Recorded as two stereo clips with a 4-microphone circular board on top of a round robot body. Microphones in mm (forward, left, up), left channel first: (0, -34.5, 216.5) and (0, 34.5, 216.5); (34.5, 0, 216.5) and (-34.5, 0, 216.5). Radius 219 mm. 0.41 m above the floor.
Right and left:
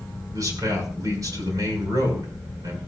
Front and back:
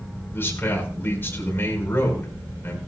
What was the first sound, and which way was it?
A man speaking, 60° left.